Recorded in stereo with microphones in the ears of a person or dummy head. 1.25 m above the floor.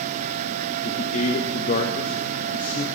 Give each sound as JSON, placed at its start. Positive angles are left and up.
{"t": 0.8, "sound": "a man speaking", "side_deg": 45, "distance_m": 1.3}